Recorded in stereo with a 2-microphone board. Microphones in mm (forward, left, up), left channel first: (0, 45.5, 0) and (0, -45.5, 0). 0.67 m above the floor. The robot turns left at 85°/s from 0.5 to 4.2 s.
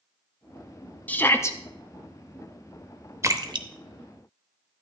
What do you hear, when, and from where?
1.1 s a shout: 150° left, 0.7 m; by 1.6 s 105° left, 0.7 m
3.2 s a splash: 30° right (ahead or behind), 0.6 m; by 3.7 s 60° right (ahead or behind), 0.6 m